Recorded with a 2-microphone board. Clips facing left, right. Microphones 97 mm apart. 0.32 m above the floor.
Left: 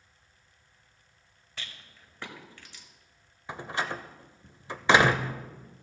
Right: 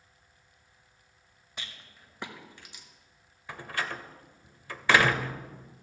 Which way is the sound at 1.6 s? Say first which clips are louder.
Even; 15° right (ahead or behind).